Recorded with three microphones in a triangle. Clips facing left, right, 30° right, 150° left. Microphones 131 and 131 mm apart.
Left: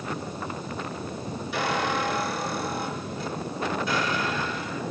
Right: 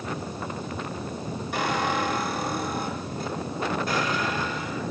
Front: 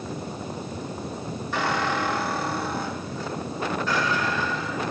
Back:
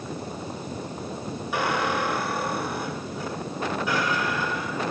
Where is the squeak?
130° right, 8 m.